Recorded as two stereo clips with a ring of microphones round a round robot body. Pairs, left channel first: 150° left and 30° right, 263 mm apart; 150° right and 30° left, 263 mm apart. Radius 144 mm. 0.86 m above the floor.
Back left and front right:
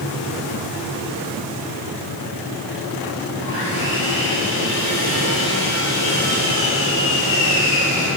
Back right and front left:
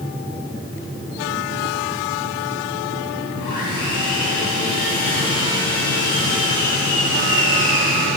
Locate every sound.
3.4 s sawing: 165° right, 8.5 m